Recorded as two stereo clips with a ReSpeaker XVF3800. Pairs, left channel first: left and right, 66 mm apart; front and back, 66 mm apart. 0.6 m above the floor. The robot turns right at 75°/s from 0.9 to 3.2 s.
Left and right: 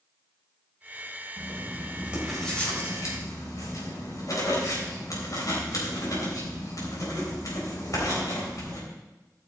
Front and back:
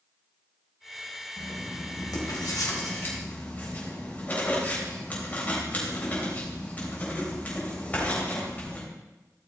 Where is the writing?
75° right, 3.5 m; by 8.8 s 65° left, 3.5 m.